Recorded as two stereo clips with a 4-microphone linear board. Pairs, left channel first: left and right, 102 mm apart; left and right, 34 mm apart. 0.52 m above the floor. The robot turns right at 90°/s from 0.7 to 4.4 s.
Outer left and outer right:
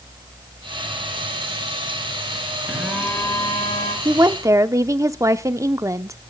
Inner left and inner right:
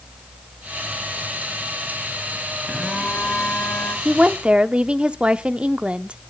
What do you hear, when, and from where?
2.7 s a phone buzzing: 20° right, 9.5 m; by 4.0 s 95° left, 9.5 m
4.0 s a woman speaking: 100° right, 0.7 m; by 6.2 s 65° right, 0.7 m